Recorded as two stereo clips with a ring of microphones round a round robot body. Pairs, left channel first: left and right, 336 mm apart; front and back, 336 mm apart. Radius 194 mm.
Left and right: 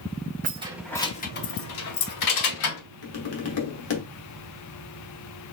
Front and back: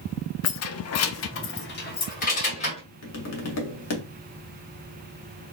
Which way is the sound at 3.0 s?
45° left.